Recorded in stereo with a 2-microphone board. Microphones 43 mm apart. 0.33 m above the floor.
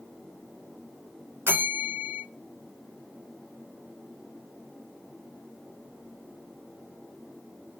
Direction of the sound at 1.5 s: 50° right (ahead or behind).